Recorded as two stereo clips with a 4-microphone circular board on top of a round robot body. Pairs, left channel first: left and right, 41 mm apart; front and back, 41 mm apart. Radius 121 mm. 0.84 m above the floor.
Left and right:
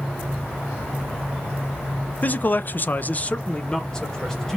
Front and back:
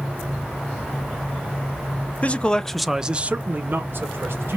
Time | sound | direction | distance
2.2 | a man speaking | 50° left | 0.7 m